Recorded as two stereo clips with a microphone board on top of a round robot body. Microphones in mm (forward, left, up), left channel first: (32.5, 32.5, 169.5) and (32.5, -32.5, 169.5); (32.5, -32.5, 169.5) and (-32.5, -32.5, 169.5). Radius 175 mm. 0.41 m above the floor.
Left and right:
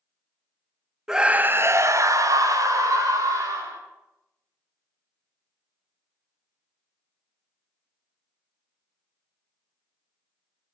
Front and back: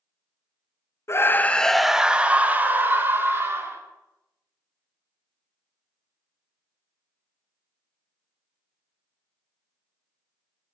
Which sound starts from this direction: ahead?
A scream, at 1.1 s.